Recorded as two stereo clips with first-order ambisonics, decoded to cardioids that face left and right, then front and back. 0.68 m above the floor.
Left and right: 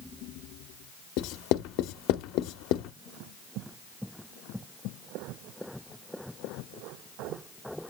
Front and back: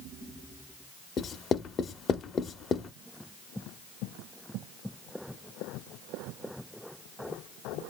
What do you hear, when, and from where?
1.2 s writing: 65° left, 0.6 m